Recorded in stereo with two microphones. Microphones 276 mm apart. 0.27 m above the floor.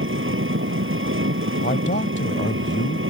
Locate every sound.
0.0 s an engine running: 45° right (ahead or behind)
1.6 s a man speaking: 40° left (ahead or behind)